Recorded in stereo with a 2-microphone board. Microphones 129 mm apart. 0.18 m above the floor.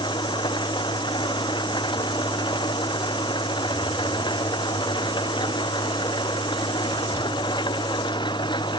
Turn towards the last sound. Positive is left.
turn(degrees=35)  # may be behind; listen again after turning